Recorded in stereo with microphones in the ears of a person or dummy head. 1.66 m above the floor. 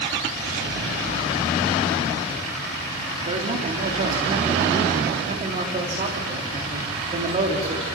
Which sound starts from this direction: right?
A man speaking, at 3.2 s.